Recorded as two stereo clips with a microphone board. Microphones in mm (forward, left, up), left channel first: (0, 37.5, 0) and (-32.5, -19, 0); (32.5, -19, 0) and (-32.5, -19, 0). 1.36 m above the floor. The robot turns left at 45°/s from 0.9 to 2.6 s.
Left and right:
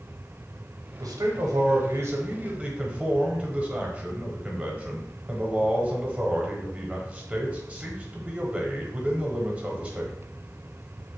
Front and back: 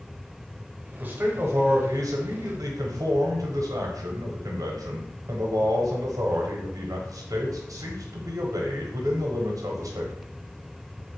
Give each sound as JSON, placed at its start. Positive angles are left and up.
{"t": 1.0, "sound": "a man speaking", "azimuth_deg": -115, "distance_m": 0.8}